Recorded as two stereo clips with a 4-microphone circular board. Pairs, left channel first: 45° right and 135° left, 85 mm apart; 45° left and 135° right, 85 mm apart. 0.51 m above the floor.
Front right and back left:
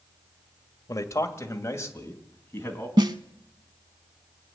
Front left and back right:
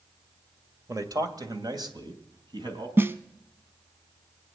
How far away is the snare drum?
About 0.8 m.